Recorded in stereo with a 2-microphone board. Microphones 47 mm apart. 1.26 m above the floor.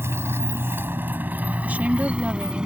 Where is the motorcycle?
65° right (ahead or behind); by 2.6 s 20° right (ahead or behind).